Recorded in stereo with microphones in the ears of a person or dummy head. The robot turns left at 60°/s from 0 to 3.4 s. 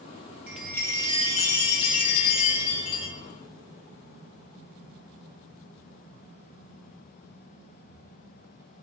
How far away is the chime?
About 0.9 m.